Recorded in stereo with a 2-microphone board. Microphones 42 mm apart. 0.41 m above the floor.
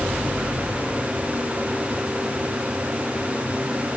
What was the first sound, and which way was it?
Only background noise.